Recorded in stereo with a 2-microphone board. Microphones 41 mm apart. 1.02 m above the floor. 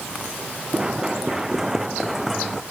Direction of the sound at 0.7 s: 20° right (ahead or behind).